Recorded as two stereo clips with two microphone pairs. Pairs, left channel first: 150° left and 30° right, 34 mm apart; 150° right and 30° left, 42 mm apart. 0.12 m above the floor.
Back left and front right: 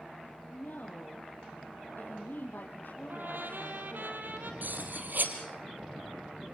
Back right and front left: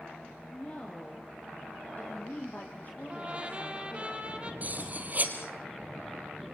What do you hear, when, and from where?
0.5 s a woman speaking: 145° left, 3.5 m; by 4.1 s 175° left, 4 m
3.1 s a trumpet: 30° right, 2 m
4.6 s cutlery clinking: 15° right, 2.5 m